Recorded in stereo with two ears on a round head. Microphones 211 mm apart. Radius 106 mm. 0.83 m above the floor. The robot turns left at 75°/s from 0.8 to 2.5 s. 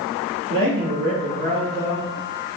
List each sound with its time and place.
0.5 s a man speaking: 90° right, 1.6 m; by 2.1 s 175° left, 1.6 m